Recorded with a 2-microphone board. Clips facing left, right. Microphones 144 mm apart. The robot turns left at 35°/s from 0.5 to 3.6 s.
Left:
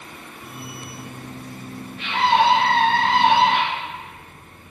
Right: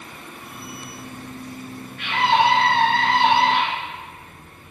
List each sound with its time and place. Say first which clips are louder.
2.0 s a scream: left 1 dB; 75° right, 3 m; by 3.6 s 130° right, 3 m